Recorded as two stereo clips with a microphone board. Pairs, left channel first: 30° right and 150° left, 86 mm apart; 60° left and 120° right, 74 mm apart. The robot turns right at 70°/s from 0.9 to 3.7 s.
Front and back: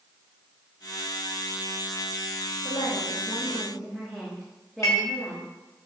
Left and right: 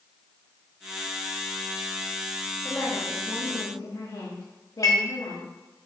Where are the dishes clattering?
20° left, 3.5 m.